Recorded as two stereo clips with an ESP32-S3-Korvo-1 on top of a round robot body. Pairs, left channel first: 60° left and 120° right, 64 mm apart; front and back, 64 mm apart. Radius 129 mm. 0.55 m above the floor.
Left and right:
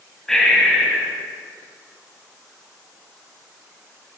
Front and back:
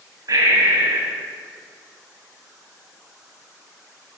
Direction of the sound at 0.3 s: 145° left.